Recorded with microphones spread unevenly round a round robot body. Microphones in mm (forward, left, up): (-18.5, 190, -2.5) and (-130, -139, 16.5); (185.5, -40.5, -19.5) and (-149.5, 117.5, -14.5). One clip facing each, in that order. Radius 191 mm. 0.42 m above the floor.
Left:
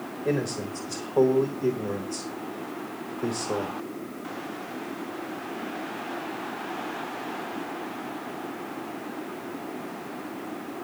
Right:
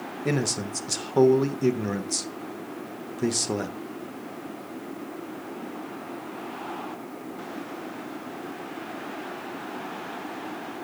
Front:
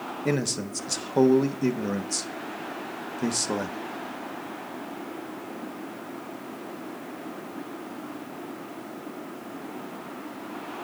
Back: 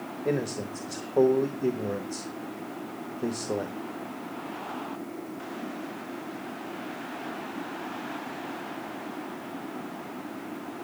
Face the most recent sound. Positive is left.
turn(degrees=-80)